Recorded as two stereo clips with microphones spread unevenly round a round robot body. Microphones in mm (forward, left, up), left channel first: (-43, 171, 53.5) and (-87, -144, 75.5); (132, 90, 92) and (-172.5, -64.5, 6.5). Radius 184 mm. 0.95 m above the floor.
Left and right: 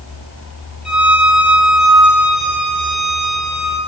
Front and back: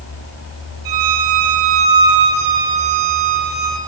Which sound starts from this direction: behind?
A violin, at 0.8 s.